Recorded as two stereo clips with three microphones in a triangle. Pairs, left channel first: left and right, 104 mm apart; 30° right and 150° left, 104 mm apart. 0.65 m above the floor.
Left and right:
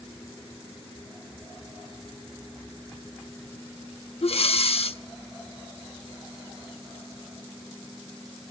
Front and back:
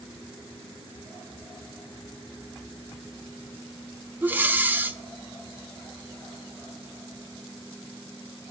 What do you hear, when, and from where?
4.2 s breathing: 80° left, 0.6 m